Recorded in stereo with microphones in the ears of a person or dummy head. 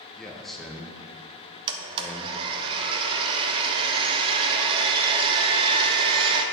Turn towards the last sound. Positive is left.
turn(degrees=-25)  # may be behind; listen again after turning